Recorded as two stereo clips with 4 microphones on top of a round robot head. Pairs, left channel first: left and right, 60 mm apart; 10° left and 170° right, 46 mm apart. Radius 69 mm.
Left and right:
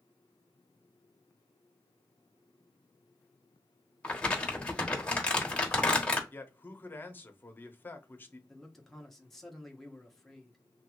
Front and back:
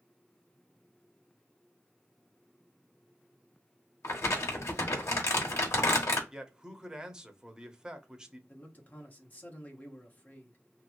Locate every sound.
4.0 s crumpling: 20° left, 1.0 m
6.3 s a man speaking: 125° left, 0.8 m
8.5 s a man speaking: 10° left, 0.9 m